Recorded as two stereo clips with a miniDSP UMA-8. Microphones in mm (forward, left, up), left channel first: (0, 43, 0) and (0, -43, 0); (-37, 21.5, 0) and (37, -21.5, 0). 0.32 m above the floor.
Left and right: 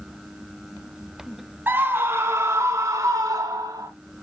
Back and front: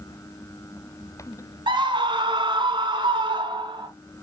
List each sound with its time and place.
1.7 s a scream: 25° right, 2.5 m; by 3.9 s 45° right, 3 m